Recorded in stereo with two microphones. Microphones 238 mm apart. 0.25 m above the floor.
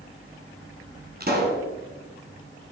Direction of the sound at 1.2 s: 40° right (ahead or behind).